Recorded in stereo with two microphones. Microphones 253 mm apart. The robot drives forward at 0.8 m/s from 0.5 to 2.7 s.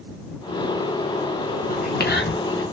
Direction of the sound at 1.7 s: 35° left (ahead or behind).